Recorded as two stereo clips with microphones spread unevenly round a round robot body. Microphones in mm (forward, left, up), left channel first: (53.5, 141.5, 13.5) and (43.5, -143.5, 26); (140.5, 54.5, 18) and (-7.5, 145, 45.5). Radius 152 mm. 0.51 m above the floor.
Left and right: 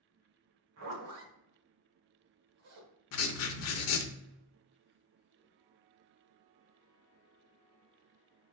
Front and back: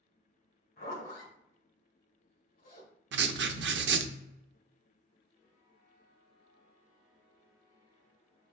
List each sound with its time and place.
0.8 s a zipper: 65° right, 1.4 m
3.1 s writing: 130° left, 0.5 m